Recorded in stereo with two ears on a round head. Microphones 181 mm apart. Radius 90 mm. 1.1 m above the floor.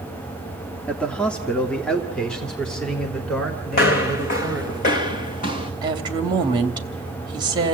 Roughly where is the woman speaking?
Right.